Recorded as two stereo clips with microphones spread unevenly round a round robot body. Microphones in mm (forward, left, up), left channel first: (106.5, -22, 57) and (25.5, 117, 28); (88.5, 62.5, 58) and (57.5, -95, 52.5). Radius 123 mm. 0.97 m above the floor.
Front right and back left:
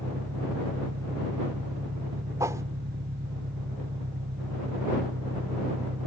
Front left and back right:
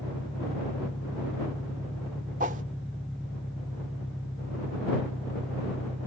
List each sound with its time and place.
0.0 s an engine running: 165° left
2.4 s a whoosh: 160° right